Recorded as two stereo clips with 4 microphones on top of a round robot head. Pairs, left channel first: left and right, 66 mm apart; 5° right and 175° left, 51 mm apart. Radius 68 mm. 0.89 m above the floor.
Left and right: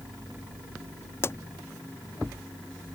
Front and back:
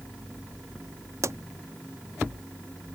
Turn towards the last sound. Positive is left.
turn(degrees=145)